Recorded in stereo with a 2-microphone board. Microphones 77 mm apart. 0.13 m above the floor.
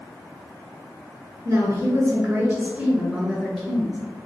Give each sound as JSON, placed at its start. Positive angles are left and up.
{"t": 1.4, "sound": "a woman speaking", "side_deg": -40, "distance_m": 2.0}